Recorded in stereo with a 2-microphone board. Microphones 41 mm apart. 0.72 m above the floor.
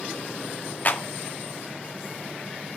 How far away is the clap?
About 1.4 m.